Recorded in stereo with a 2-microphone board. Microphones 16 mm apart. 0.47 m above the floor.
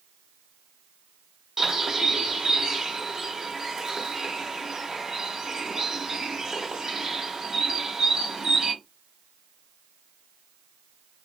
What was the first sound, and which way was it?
A bird, 45° right (ahead or behind).